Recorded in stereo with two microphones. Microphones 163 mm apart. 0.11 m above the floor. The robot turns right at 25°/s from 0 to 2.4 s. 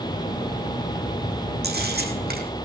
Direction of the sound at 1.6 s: 80° right.